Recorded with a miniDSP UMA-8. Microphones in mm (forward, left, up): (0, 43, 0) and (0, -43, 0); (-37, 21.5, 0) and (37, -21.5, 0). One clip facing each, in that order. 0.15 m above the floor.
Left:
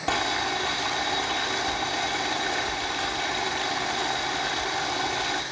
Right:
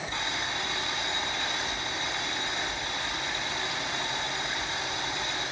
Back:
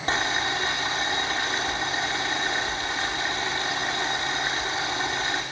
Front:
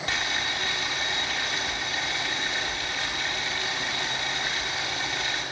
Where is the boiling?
90° left, 5.5 m.